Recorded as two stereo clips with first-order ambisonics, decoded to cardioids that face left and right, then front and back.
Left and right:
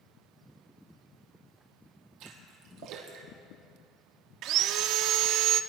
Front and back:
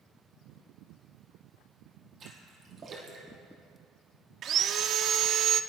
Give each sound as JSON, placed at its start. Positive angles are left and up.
{"t": 2.2, "sound": "a splash", "azimuth_deg": -120, "distance_m": 3.5}
{"t": 4.4, "sound": "sawing", "azimuth_deg": -125, "distance_m": 0.5}